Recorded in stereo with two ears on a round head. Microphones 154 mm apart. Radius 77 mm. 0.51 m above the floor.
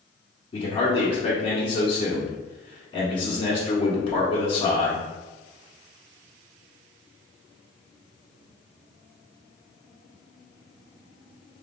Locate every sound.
0.5 s a man speaking: 30° left (ahead or behind), 1.1 m